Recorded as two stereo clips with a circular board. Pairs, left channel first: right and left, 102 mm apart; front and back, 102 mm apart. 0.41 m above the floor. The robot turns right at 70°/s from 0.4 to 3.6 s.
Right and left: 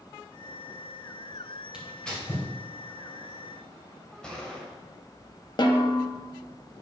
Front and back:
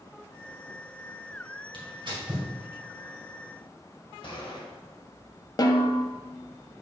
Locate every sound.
1.7 s tearing paper: 165° left, 2 m; by 2.5 s 145° right, 2 m
4.2 s a gunshot: 10° right, 1.9 m
5.6 s a snare drum: 50° right, 0.8 m